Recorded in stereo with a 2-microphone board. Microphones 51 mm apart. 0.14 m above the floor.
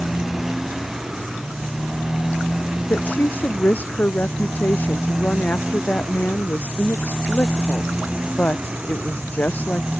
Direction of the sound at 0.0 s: 5° right (ahead or behind).